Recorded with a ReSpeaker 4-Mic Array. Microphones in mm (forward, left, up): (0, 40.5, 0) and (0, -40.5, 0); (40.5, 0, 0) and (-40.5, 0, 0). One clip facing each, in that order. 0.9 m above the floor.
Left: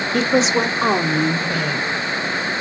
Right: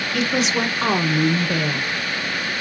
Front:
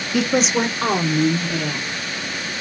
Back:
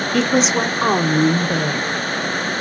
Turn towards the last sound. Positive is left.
turn(degrees=-145)